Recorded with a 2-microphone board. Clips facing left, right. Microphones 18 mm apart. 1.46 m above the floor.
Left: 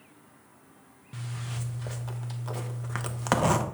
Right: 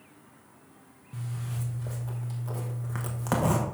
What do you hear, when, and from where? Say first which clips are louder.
1.1 s a zipper: even; 50° left (ahead or behind), 0.8 m